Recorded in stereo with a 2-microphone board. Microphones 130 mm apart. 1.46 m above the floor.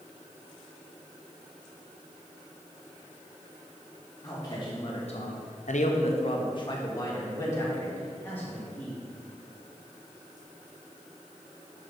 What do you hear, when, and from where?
4.2 s a man speaking: 30° left (ahead or behind), 1.6 m; by 9.0 s 15° left (ahead or behind), 3.5 m